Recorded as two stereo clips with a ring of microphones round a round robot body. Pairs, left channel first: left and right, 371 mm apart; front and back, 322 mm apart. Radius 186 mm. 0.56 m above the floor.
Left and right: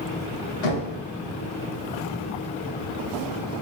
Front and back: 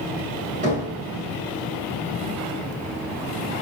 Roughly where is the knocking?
Left.